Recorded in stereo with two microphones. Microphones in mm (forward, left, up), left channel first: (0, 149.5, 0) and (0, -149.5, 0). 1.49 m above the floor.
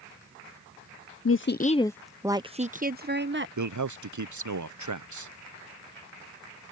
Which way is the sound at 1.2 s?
50° left (ahead or behind).